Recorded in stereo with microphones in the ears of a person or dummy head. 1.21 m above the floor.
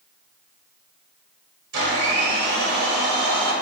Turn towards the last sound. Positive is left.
turn(degrees=-70)  # may be behind; listen again after turning